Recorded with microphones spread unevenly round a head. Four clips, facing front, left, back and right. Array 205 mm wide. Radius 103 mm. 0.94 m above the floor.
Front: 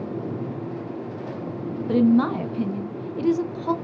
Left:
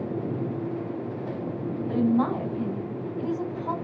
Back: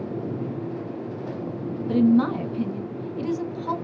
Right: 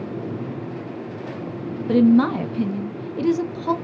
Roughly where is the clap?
No clap in this recording.